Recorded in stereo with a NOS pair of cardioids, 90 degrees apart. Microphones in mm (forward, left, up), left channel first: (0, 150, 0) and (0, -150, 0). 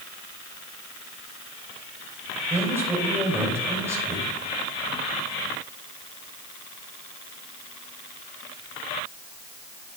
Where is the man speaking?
10° right, 4.5 m.